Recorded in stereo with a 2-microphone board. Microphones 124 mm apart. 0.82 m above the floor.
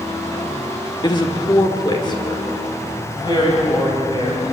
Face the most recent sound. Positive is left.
turn(degrees=40)  # may be behind; listen again after turning